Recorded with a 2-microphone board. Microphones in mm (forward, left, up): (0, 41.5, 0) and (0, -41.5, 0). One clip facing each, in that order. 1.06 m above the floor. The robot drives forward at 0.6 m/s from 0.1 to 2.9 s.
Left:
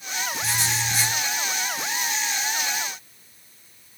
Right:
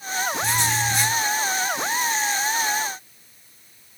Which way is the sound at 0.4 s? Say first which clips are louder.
Right 4 dB; 5° left (ahead or behind).